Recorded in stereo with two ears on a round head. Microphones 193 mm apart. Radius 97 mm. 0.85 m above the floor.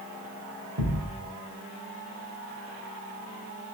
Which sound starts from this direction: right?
A thud, at 0.8 s.